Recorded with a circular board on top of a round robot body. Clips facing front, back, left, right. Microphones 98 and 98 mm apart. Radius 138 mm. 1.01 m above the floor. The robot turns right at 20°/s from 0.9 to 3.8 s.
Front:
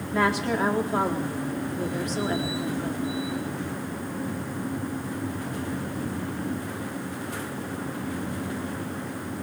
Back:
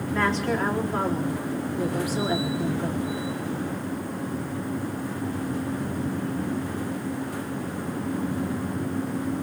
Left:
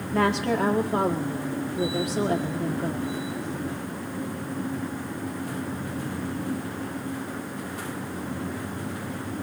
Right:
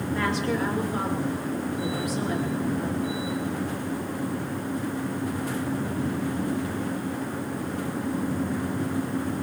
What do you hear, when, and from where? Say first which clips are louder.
0.1 s a woman speaking: front 1 dB, left 4 dB; 75° left, 1.4 m; by 3.1 s 120° left, 1.4 m